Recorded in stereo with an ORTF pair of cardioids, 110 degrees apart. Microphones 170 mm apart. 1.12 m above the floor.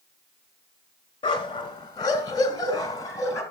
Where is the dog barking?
30° left, 2.5 m; by 3.4 s 20° left, 3.5 m.